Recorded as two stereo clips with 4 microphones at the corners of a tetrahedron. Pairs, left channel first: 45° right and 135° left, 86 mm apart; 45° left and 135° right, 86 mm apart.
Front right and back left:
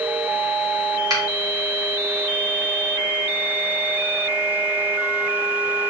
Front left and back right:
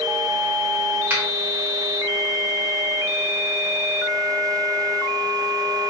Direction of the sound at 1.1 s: 165° left.